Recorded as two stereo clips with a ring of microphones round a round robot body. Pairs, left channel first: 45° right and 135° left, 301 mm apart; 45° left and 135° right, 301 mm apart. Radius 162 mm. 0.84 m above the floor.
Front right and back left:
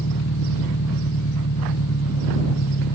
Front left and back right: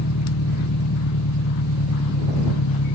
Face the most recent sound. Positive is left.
turn(degrees=5)